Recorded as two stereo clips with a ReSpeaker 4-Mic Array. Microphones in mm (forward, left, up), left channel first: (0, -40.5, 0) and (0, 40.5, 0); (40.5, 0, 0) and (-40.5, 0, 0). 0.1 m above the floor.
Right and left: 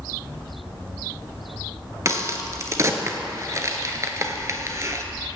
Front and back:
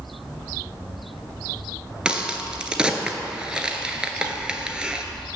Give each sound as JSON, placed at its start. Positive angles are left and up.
{"t": 2.0, "sound": "a crack", "azimuth_deg": 110, "distance_m": 0.8}